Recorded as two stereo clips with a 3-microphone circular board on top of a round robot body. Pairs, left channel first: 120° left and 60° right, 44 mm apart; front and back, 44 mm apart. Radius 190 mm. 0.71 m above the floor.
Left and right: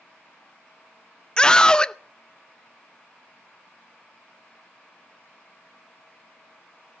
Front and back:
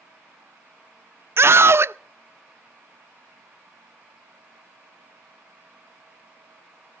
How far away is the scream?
About 0.8 m.